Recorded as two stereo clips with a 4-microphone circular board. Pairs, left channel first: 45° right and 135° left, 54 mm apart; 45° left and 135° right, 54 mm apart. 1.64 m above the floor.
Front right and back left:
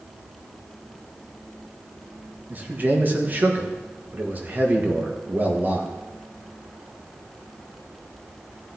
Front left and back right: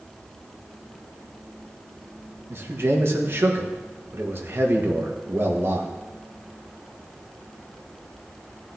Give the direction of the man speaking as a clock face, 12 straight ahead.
6 o'clock.